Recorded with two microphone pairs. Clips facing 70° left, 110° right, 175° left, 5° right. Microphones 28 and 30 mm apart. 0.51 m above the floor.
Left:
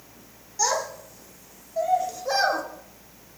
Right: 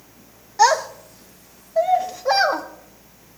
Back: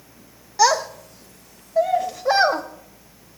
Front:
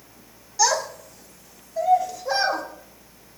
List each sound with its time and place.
0.6 s a child speaking: 140° right, 1.1 m; by 2.6 s 170° right, 1.9 m